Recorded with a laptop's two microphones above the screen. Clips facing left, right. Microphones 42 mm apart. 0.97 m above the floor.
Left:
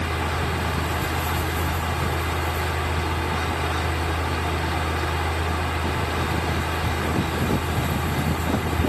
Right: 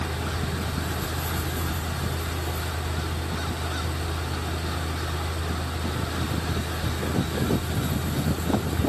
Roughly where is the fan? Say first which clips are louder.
Left 5 dB; left.